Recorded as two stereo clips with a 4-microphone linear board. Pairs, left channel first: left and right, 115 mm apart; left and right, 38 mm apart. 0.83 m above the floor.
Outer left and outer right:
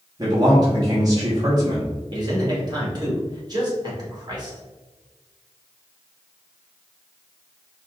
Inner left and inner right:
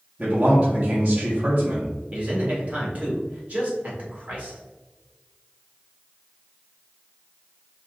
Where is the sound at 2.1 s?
35° right (ahead or behind), 2.0 m.